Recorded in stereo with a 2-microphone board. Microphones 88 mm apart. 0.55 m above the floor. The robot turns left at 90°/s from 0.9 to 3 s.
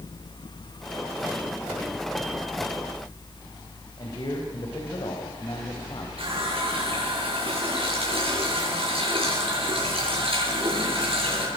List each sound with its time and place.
4.0 s a man speaking: 55° left (ahead or behind), 4 m
6.2 s a running tap: 75° right (ahead or behind), 7 m